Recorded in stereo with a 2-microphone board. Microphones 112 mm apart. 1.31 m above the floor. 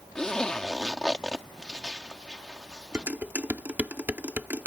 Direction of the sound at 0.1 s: 5° left (ahead or behind).